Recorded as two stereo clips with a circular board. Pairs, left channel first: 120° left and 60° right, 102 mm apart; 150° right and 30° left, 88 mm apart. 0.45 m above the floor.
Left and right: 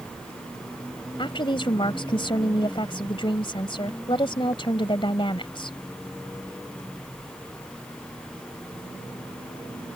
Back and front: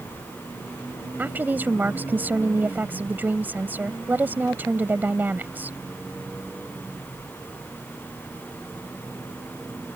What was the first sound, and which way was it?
A woman speaking, 95° left.